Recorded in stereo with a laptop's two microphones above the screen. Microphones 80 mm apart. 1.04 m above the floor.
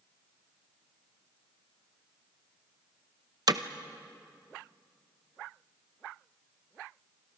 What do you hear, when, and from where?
3.5 s hammering: 55° right (ahead or behind), 0.8 m